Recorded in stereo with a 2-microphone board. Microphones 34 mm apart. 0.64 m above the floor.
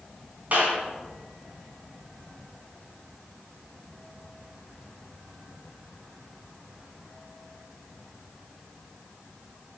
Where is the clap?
45° right (ahead or behind), 5 m.